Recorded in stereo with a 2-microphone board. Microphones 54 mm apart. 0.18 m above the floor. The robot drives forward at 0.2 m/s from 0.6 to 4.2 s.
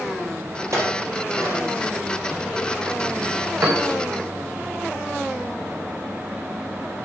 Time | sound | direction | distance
0.7 | a clink | 70° right (ahead or behind) | 3.5 m
3.6 | a piano | 65° right (ahead or behind) | 2.5 m